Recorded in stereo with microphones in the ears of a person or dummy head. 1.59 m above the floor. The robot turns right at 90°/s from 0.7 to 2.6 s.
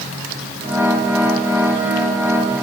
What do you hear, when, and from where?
Only background noise.